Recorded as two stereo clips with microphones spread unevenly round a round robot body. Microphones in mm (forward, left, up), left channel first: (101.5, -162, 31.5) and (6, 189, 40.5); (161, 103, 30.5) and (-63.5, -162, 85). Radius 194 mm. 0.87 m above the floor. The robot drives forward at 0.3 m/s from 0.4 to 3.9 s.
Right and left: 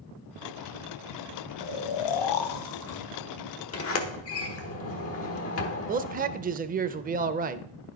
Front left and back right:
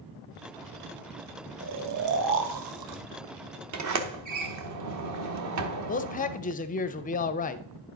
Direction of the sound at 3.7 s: 105° right.